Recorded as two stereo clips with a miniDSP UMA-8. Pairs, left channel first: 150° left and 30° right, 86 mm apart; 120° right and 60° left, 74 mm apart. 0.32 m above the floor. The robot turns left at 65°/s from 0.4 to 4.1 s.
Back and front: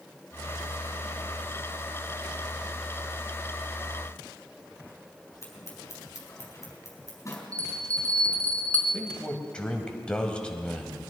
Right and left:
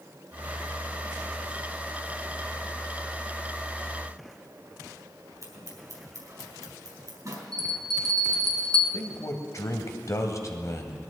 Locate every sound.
5.4 s scissors: 95° left, 4 m
7.5 s a bell: 75° left, 2 m
8.9 s a man speaking: 135° right, 1.6 m